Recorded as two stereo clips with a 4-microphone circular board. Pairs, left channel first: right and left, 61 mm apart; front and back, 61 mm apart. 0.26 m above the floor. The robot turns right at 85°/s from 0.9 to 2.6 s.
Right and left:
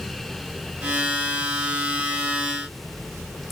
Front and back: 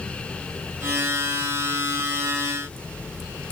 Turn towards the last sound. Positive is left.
No sound to turn to.